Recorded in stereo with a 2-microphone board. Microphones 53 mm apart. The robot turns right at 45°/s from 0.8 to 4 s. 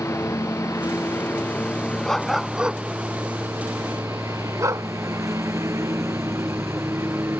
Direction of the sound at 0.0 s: 65° left (ahead or behind).